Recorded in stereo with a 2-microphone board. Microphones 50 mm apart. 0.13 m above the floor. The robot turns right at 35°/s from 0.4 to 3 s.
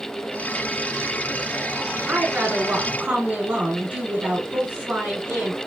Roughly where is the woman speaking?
Right.